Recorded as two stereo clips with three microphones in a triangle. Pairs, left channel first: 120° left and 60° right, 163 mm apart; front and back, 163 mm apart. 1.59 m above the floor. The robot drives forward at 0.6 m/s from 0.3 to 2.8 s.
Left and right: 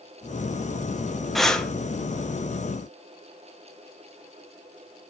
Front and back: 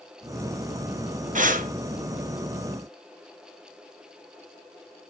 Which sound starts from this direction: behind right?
Breathing, at 1.4 s.